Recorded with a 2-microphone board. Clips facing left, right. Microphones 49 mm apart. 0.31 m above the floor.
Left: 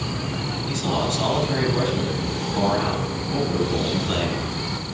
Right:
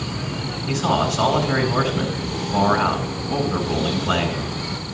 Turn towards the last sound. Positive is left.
turn(degrees=-55)  # may be behind; listen again after turning